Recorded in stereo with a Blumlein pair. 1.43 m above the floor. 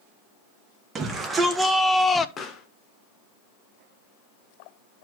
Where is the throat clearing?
I don't hear throat clearing.